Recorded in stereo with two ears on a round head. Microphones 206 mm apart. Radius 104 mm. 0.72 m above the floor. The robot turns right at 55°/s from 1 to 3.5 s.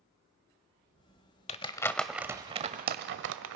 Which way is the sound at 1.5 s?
30° left (ahead or behind).